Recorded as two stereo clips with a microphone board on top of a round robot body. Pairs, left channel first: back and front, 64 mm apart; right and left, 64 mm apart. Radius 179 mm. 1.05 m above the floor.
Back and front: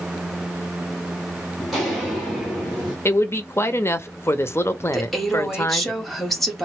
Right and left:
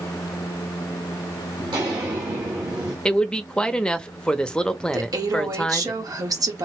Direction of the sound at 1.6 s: 85° left.